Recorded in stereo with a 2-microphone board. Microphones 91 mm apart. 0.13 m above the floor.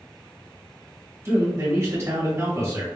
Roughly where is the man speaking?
Right.